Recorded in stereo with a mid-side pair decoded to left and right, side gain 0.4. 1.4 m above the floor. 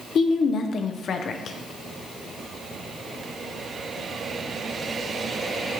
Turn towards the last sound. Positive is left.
turn(degrees=55)